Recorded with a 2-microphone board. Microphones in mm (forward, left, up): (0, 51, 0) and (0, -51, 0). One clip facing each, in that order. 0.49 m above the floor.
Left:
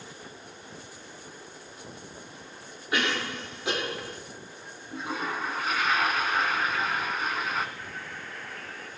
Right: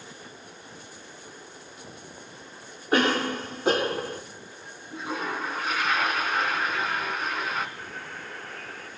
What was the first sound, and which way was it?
A cough, 40° right (ahead or behind).